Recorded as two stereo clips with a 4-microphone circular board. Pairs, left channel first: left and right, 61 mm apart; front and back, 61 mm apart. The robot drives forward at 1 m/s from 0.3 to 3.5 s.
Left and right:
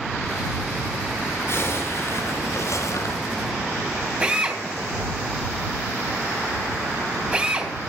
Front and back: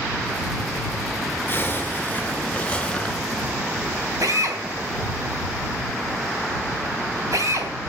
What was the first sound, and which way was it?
A zipper, 55° left.